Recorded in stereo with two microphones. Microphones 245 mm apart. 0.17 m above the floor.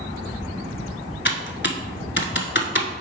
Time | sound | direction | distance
1.2 | typing on a keyboard | 50° left (ahead or behind) | 0.8 m